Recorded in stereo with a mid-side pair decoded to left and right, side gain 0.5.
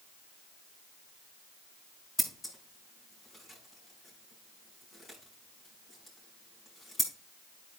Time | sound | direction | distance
2.2 | scissors | 25° left | 5 m